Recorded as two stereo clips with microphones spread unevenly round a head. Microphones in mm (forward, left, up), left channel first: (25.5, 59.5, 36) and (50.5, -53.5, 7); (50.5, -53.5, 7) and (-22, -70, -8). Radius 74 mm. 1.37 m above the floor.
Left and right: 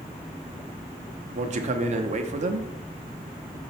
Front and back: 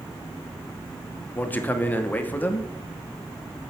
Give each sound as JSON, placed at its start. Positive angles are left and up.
{"t": 1.4, "sound": "a man speaking", "azimuth_deg": -50, "distance_m": 0.8}